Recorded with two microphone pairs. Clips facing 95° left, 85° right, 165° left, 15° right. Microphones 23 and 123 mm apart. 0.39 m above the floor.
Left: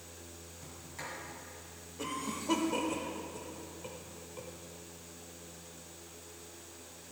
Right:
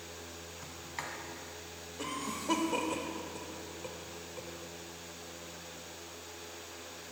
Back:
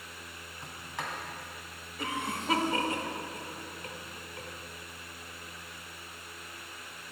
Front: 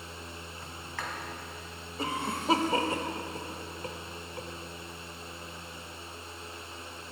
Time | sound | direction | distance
0.6 | a sliding door | 125° right | 2.0 m
2.0 | a cough | 10° right | 1.1 m